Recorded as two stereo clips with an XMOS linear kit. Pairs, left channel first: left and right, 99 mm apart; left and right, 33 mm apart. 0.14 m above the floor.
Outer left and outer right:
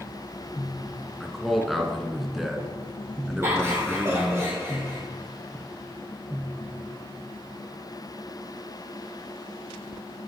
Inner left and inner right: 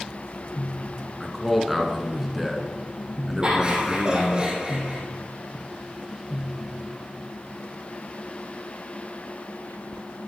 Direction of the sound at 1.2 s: Centre (ahead or behind).